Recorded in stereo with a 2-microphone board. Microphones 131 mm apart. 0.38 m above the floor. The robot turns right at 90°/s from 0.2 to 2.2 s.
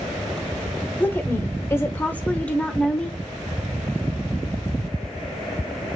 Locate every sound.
1.0 s a woman speaking: 10° left (ahead or behind), 1.1 m